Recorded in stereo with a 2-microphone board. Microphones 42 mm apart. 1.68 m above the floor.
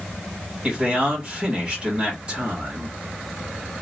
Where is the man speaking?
30° right (ahead or behind), 2 m.